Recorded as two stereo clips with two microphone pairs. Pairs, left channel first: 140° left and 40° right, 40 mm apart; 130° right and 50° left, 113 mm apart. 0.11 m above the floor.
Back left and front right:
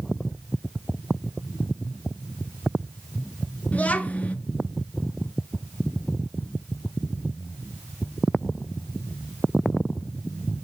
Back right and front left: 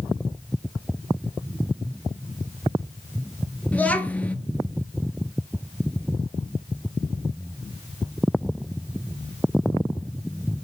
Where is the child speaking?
160° left, 0.8 m.